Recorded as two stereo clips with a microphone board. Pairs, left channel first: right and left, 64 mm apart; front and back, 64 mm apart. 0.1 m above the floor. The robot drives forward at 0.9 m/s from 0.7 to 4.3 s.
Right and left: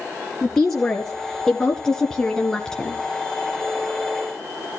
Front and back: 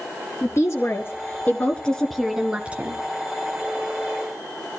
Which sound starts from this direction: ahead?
A woman speaking, at 0.4 s.